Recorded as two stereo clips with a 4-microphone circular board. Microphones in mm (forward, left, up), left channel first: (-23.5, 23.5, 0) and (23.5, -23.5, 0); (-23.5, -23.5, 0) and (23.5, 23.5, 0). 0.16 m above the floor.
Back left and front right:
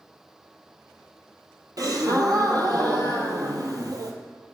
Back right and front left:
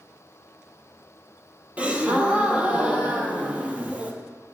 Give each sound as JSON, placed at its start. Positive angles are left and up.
{"t": 1.8, "sound": "a gasp", "azimuth_deg": -25, "distance_m": 0.8}